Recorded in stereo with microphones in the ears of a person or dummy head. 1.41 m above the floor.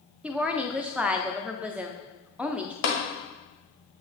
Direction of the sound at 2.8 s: 60° left (ahead or behind).